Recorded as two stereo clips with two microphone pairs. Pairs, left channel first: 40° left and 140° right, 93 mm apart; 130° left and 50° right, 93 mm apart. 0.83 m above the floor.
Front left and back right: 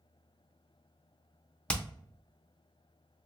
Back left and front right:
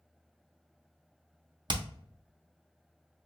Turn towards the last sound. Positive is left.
turn(degrees=-35)